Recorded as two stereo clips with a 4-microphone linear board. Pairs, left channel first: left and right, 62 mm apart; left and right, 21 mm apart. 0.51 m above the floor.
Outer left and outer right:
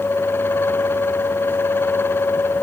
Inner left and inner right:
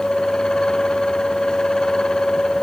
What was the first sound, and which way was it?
Only background noise.